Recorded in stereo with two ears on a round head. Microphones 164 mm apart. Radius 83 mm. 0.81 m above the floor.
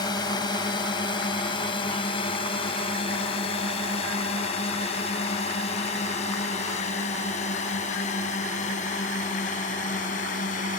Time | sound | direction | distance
0.0 | a drone | 20° left (ahead or behind) | ?